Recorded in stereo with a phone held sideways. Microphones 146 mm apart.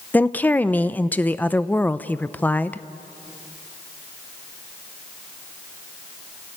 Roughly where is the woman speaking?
Centre.